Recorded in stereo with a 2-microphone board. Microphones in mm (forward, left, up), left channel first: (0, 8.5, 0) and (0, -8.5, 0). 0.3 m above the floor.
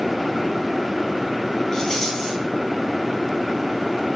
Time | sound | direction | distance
1.7 | a rattle | 30° left (ahead or behind) | 3 m